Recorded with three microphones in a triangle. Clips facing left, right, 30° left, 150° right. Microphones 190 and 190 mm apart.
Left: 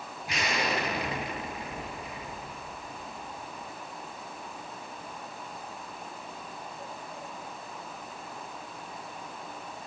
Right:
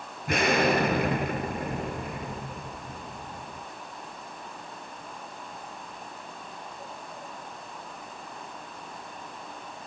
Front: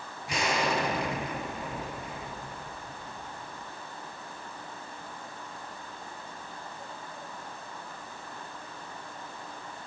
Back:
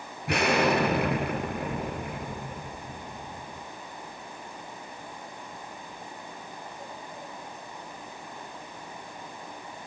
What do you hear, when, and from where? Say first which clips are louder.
0.3 s an explosion: right 8 dB, back 6 dB; 125° right, 3.5 m